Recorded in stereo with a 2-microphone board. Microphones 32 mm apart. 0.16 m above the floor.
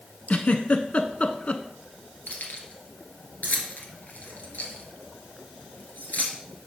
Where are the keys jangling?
65° left (ahead or behind), 1.5 m.